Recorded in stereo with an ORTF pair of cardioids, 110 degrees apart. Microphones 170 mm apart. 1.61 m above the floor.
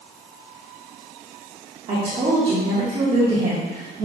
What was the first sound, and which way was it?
A woman speaking, 35° right.